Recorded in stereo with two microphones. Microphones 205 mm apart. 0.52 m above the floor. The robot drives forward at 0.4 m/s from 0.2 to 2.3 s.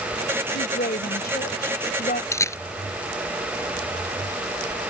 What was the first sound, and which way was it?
A woman speaking, 55° left (ahead or behind).